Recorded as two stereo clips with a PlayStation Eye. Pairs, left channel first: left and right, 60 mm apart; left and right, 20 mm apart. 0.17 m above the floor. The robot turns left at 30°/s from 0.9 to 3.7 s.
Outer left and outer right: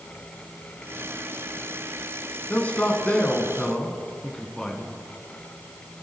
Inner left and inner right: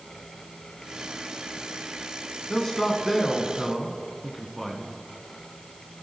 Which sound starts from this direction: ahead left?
A man speaking, at 2.5 s.